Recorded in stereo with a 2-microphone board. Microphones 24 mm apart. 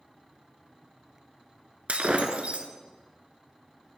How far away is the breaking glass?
About 0.9 m.